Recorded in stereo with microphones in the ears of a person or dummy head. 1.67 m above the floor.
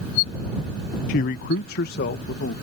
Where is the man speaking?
45° left (ahead or behind); by 2.5 s 50° left (ahead or behind).